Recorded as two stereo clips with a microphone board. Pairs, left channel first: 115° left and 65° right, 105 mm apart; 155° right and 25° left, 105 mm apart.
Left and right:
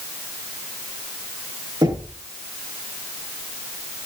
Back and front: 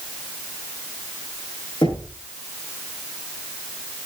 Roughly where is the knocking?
Behind right.